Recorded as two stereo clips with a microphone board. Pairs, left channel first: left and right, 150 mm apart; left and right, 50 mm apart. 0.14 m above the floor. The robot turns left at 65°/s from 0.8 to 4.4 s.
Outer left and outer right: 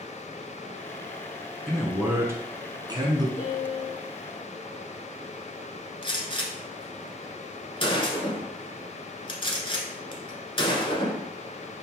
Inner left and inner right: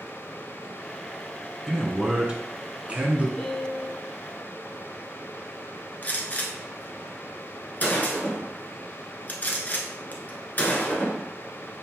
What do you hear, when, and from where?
1.7 s a man speaking: centre (ahead or behind), 1.1 m; by 3.3 s 25° right (ahead or behind), 1.1 m
3.4 s a piano: 140° left, 1.3 m; by 4.0 s 100° left, 1.3 m
6.0 s a gunshot: 35° left (ahead or behind), 1.0 m